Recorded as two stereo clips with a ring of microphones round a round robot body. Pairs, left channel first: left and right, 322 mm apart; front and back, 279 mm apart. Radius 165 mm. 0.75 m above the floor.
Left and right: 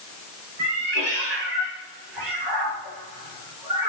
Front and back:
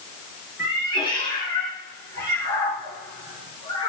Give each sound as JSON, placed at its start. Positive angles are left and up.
{"t": 0.6, "sound": "a cat meowing", "azimuth_deg": -80, "distance_m": 6.0}